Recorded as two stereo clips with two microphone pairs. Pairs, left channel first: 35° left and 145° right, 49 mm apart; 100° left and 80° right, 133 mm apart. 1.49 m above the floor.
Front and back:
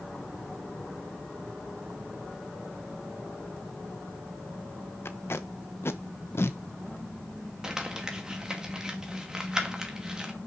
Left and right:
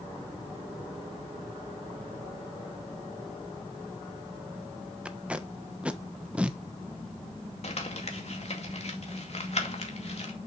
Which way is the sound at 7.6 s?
140° left.